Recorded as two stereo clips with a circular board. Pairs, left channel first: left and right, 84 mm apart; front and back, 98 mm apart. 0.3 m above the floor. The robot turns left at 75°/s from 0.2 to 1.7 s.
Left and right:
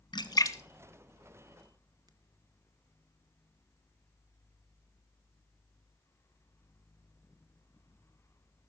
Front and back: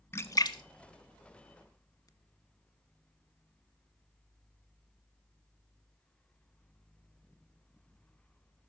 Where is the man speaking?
I don't hear a man speaking.